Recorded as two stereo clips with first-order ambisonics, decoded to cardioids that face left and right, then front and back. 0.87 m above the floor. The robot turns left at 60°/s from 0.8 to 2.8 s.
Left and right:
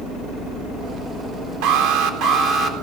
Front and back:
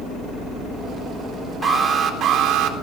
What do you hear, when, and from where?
1.6 s an alarm: 90° right, 4 m; by 2.8 s 160° right, 4 m